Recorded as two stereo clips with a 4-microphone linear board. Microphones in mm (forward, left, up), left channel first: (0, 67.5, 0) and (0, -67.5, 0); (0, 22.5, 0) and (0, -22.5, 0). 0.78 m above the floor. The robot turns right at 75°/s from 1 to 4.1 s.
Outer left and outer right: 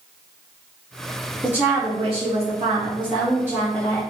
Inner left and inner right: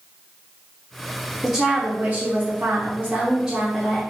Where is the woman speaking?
170° right, 0.7 m; by 4.0 s 20° left, 0.7 m.